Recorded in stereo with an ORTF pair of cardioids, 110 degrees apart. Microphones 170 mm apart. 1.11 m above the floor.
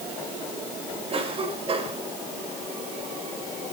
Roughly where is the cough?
Ahead right.